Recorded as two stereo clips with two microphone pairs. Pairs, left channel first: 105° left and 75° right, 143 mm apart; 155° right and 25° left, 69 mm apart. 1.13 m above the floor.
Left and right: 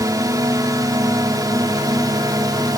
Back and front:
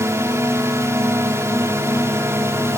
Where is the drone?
15° right.